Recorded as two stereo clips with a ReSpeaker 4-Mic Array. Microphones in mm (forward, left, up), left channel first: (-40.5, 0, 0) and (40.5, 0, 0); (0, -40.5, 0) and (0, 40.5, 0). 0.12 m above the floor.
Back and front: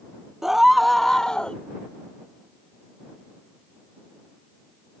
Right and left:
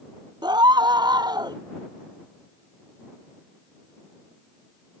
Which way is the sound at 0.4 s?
85° left.